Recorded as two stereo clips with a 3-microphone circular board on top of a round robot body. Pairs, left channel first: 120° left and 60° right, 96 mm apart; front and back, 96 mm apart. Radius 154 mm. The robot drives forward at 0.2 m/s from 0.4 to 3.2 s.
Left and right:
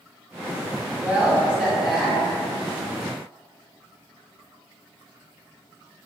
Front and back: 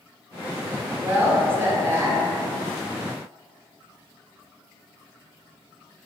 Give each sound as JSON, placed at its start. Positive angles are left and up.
{"t": 1.0, "sound": "a woman speaking", "azimuth_deg": -125, "distance_m": 0.8}